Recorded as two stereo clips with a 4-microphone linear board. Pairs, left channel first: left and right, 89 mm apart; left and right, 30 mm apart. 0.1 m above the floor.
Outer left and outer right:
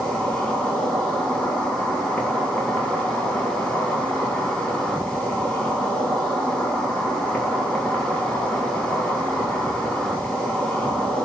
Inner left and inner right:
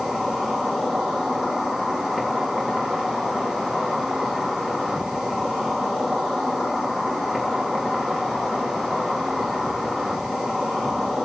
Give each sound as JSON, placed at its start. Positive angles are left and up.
{"t": 0.0, "sound": "an insect", "side_deg": 10, "distance_m": 4.0}